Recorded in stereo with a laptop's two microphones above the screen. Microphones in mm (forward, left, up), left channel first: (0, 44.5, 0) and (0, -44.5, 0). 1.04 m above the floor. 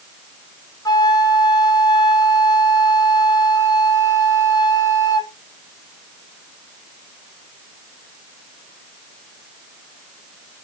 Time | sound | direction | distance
0.8 | a flute | 45° left (ahead or behind) | 0.5 m